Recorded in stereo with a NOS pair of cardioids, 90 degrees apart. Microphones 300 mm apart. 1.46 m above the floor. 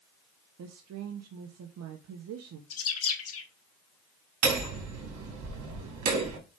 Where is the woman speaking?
60° right, 1.2 m.